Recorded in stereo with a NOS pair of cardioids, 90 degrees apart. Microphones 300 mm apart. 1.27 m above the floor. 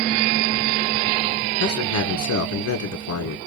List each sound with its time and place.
1.6 s a man speaking: 70° left, 1.6 m